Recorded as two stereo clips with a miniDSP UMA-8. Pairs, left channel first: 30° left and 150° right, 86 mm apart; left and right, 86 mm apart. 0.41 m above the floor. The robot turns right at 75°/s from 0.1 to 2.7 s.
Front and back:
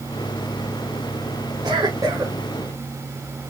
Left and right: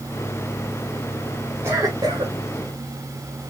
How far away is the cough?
About 1.7 m.